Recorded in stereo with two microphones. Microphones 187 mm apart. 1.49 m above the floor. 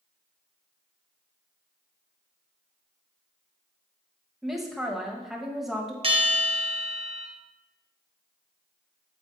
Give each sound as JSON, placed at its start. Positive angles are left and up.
{"t": 4.4, "sound": "a woman speaking", "side_deg": 0, "distance_m": 1.4}
{"t": 6.0, "sound": "a bell", "side_deg": -30, "distance_m": 0.9}